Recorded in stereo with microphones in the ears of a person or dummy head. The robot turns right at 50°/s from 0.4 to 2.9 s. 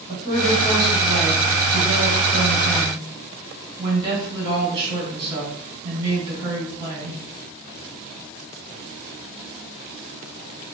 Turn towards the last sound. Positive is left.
turn(degrees=-20)